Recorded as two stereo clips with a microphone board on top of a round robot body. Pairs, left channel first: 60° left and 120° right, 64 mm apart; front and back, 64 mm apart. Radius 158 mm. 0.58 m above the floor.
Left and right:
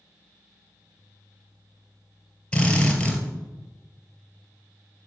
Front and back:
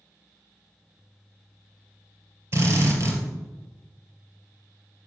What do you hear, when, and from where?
2.5 s a drill: 130° left, 3 m